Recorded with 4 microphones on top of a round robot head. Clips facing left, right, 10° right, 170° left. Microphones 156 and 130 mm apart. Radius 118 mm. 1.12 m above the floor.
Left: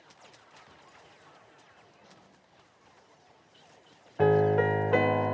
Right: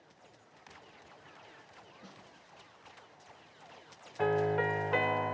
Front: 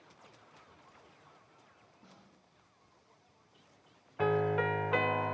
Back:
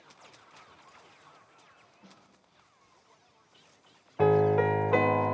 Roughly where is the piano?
Behind left.